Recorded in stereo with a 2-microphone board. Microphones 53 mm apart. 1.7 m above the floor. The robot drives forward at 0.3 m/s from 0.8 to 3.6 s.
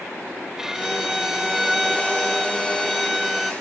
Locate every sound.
0.6 s a violin: 10° right (ahead or behind); by 3.5 s 5° right (ahead or behind)